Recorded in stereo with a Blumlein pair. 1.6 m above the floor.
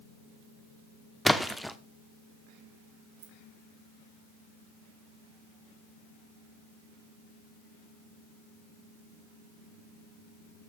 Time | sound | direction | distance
1.2 | a splash | straight ahead | 1.0 m
3.2 | keys jangling | 55° right | 2.5 m